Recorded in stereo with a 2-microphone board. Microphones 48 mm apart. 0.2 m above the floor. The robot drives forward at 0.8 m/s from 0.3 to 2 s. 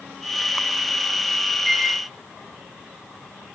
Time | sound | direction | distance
1.6 | a microwave | 5° left (ahead or behind) | 6.5 m